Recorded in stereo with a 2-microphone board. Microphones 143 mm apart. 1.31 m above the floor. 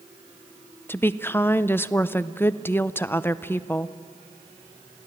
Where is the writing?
No writing in this recording.